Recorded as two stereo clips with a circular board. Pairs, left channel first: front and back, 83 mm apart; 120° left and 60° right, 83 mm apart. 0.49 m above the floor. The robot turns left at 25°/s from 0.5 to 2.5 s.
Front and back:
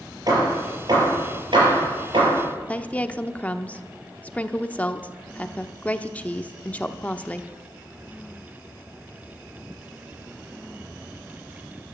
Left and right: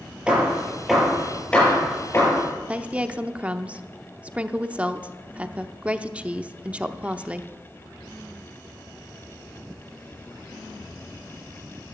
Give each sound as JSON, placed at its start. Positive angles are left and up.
{"t": 0.3, "sound": "hammering", "azimuth_deg": -140, "distance_m": 5.5}
{"t": 2.7, "sound": "a woman speaking", "azimuth_deg": -25, "distance_m": 0.7}